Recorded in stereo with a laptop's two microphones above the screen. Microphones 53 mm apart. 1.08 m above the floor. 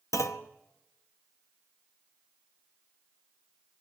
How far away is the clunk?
About 0.7 m.